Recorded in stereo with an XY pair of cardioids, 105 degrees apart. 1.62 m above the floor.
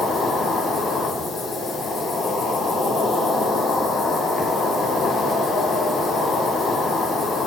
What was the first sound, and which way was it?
An insect, 60° left.